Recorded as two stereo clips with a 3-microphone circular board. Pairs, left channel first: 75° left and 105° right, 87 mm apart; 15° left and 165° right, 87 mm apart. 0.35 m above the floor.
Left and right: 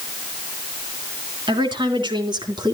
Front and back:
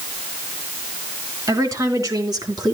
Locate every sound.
1.5 s a woman speaking: 120° right, 4 m; by 2.8 s 130° right, 3 m